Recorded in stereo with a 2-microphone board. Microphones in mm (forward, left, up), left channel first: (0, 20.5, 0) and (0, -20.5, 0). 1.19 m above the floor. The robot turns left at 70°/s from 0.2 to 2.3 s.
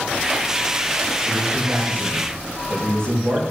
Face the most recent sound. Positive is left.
turn(degrees=-70)